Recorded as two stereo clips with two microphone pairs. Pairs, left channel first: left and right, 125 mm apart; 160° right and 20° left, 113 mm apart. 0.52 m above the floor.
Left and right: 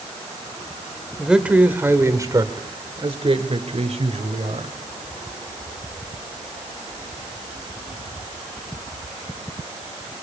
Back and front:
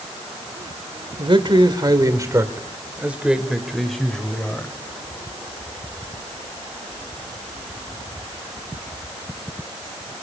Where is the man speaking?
10° right, 1.7 m; by 4.7 s 85° right, 2.5 m.